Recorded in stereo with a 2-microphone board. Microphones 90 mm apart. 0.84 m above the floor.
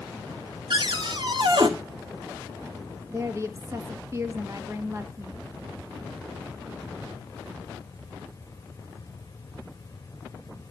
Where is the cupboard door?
55° right (ahead or behind), 1.8 m.